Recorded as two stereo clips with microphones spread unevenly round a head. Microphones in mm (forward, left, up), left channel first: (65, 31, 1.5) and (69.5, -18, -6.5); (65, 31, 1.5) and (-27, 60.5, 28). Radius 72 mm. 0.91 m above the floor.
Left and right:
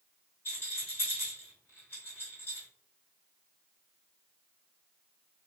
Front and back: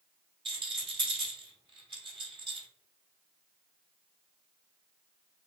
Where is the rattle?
140° left, 1.0 m.